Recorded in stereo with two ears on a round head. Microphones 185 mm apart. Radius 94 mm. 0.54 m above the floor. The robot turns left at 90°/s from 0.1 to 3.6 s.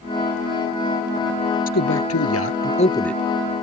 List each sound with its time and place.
1.7 s a man speaking: 135° left; by 3.2 s 5° right